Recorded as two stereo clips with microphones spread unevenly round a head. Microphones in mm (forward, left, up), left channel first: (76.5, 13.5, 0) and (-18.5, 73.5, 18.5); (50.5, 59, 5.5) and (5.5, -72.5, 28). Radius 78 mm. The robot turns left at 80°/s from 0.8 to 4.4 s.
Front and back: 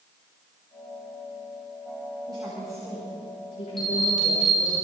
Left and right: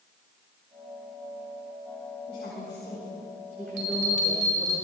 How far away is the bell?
About 6.5 m.